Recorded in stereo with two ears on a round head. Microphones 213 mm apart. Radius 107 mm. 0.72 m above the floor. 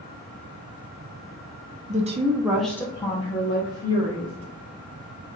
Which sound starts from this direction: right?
A woman speaking, at 1.9 s.